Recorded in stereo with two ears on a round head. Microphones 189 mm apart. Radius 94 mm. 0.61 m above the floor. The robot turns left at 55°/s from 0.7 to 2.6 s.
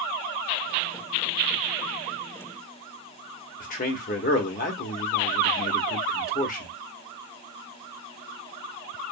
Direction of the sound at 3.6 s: 40° left (ahead or behind).